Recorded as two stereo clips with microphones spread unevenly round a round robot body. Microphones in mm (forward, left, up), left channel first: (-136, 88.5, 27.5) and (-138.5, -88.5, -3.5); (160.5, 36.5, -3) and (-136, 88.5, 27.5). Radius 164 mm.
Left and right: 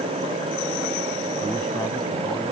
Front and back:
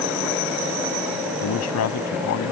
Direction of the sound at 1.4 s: 5° left.